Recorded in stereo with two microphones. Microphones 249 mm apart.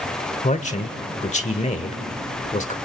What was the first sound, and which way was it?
A man speaking, 30° left (ahead or behind).